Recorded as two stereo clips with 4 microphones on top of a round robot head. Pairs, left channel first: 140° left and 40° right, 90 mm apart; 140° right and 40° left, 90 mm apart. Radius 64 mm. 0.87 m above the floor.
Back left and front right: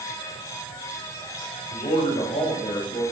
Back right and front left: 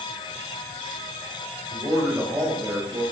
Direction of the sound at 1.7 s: 110° left.